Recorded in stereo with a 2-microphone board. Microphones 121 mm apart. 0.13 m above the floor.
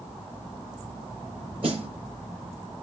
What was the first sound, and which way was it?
A snare drum, 45° right (ahead or behind).